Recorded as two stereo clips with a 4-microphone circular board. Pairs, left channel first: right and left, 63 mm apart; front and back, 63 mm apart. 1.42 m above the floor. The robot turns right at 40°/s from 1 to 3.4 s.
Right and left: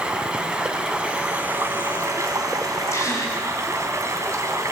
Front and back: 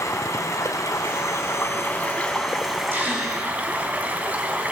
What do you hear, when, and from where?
0.0 s running water: 20° left, 2.5 m; by 4.7 s 115° left, 2.5 m
2.9 s a gasp: 125° right, 4.5 m; by 3.4 s 105° right, 4.5 m